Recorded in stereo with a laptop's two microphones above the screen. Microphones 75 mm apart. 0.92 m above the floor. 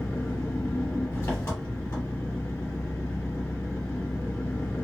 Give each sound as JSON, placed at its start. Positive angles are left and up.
{"t": 0.0, "sound": "an engine running", "side_deg": 40, "distance_m": 1.6}